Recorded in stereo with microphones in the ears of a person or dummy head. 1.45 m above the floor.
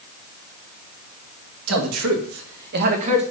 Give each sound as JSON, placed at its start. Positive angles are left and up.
{"t": 1.7, "sound": "a man speaking", "side_deg": -85, "distance_m": 2.5}